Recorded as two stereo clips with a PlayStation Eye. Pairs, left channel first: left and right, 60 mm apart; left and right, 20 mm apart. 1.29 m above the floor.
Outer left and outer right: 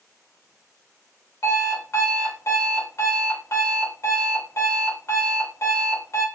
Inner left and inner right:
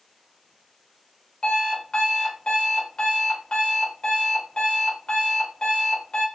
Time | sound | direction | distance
1.4 | an alarm clock | 55° left (ahead or behind) | 1.4 m